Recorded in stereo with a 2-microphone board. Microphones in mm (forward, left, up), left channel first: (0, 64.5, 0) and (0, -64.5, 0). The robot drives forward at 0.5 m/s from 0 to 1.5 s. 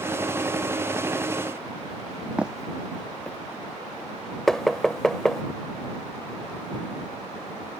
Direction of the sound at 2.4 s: 10° right (ahead or behind).